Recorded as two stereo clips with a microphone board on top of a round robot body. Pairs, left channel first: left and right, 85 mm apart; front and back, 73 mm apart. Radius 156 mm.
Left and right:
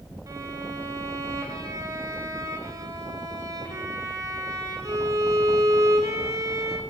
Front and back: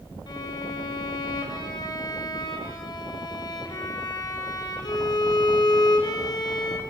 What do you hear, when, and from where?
0.3 s a violin: 35° right, 3 m